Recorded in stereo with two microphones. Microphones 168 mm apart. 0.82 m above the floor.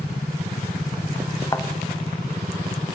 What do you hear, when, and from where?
1.5 s a thud: 20° left (ahead or behind), 0.8 m